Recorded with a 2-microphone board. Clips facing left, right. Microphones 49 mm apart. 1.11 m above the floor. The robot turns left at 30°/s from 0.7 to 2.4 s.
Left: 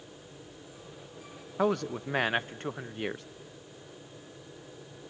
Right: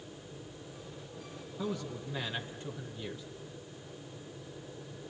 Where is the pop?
I don't hear a pop.